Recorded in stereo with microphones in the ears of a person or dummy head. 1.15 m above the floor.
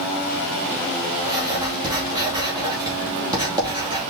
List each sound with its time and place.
1.2 s writing: 20° right (ahead or behind), 2.5 m